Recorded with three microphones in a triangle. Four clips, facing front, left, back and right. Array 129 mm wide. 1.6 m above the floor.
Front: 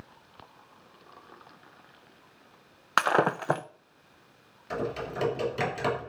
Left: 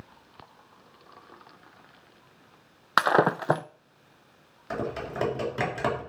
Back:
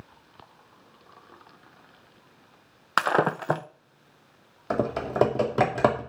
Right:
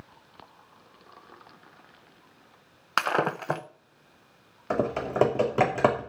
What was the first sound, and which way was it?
Breaking glass, 105° left.